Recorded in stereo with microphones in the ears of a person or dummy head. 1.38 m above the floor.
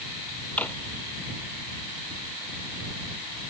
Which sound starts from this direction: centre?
A drawer, at 0.6 s.